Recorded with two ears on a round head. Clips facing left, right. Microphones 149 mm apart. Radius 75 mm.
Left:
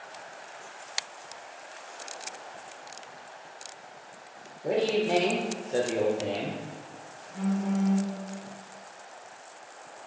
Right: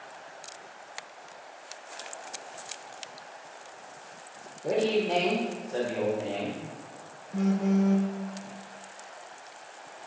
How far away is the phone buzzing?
About 1.0 m.